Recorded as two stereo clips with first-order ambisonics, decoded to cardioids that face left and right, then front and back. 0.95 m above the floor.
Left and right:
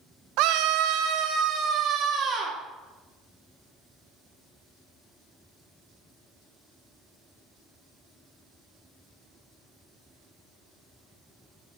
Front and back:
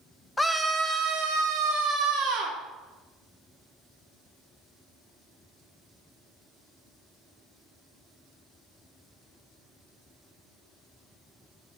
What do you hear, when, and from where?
0.4 s a scream: 80° right, 0.6 m; by 2.6 s 150° right, 1.9 m